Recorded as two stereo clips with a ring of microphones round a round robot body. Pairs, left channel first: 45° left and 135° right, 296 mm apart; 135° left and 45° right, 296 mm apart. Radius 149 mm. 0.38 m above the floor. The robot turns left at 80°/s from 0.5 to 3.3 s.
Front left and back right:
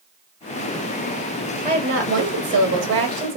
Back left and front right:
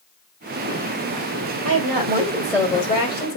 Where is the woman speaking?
65° right, 1.5 m; by 3.4 s 160° left, 1.5 m.